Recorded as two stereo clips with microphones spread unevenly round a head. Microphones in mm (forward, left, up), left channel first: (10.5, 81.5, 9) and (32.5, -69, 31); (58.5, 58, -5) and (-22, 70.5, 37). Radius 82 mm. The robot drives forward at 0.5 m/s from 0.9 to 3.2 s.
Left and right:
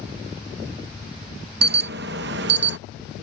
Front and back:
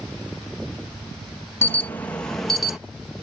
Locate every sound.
1.6 s an alarm: 65° right; by 2.8 s 95° right